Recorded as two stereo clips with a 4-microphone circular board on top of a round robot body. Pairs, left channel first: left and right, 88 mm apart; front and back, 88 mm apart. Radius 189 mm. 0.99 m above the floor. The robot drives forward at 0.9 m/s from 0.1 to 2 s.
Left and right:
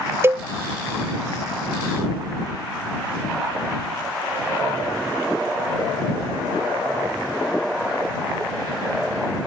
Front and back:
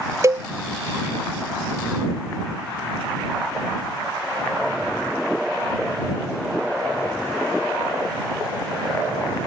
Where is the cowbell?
140° right; by 0.5 s 155° right.